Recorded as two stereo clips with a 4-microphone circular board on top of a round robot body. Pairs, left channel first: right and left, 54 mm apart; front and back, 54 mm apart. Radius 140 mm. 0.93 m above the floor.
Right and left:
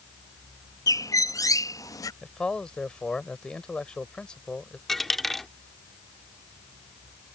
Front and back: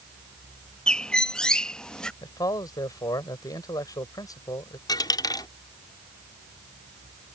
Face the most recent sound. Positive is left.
turn(degrees=-5)